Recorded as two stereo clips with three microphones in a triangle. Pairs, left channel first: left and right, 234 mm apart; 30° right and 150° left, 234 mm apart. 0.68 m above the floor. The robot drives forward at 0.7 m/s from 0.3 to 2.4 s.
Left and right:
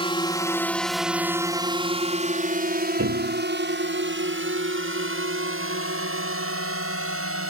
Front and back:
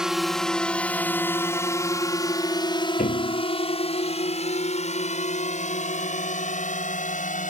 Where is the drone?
65° left; by 7.5 s 85° right.